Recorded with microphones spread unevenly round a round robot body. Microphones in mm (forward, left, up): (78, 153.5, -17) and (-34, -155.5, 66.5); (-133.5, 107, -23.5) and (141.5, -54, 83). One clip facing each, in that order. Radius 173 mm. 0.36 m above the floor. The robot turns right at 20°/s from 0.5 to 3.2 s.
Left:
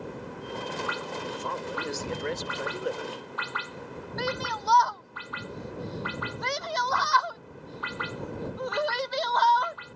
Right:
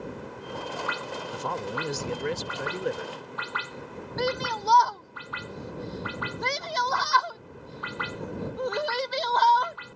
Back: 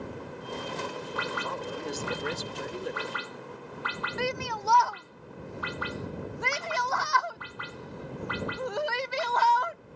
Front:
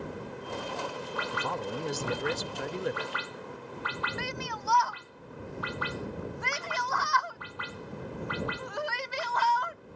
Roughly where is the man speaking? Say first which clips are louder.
Right 2 dB, front 1 dB; right.